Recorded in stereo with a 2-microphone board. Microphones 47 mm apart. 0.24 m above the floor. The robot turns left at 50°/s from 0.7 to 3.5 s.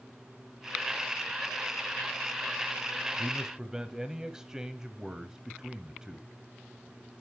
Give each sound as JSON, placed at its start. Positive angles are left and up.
{"t": 3.2, "sound": "a man speaking", "side_deg": -15, "distance_m": 1.0}